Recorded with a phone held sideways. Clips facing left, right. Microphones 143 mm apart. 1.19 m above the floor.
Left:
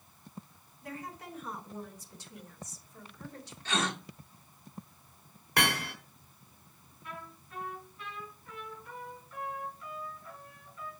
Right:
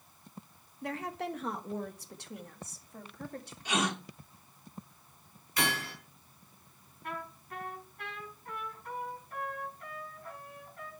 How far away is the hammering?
About 4 m.